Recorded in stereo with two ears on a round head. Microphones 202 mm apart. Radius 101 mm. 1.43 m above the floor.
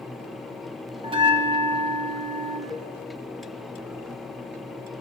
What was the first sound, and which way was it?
A bell, 25° right (ahead or behind).